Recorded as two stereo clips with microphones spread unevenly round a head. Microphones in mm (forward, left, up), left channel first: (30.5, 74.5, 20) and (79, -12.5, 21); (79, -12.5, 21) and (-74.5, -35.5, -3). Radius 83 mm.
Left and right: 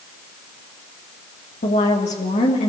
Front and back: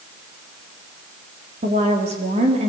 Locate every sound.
1.6 s a woman speaking: 135° left, 3 m